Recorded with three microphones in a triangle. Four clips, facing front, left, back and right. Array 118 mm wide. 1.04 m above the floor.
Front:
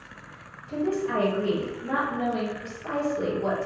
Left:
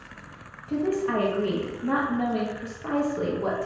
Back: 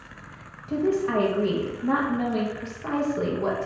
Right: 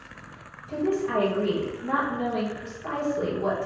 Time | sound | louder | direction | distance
0.7 | a woman speaking | even, back 3 dB | 140° left | 0.6 m